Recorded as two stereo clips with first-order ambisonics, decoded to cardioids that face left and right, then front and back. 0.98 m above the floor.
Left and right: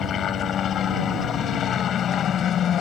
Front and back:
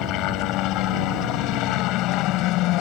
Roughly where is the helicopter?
Ahead left.